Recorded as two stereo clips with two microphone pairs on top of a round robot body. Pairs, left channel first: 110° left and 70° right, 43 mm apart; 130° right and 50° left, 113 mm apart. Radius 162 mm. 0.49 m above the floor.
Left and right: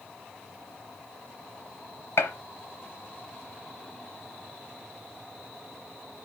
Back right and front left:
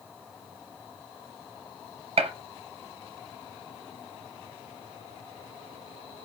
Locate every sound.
2.2 s a gunshot: 85° left, 0.9 m